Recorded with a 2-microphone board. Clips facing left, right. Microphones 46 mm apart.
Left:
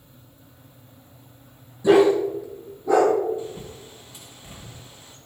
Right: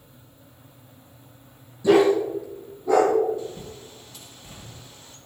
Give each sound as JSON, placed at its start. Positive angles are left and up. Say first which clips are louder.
{"t": 1.8, "sound": "a dog barking", "louder": "left 1 dB", "side_deg": 15, "distance_m": 4.0}
{"t": 3.4, "sound": "a bird", "louder": "left 1 dB", "side_deg": 20, "distance_m": 2.5}